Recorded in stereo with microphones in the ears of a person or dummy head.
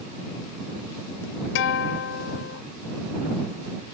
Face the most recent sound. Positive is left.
turn(degrees=70)  # may be behind; listen again after turning